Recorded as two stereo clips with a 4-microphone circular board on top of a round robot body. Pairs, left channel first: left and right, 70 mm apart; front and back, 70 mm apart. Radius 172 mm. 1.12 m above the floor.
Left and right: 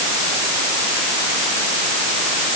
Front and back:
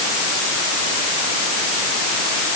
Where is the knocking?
I don't hear knocking.